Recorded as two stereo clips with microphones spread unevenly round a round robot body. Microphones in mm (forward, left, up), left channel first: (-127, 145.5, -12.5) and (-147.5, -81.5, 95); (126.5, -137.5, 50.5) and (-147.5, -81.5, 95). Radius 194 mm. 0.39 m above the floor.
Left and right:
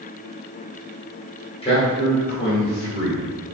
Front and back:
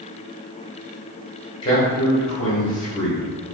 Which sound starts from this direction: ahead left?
A man speaking, at 1.6 s.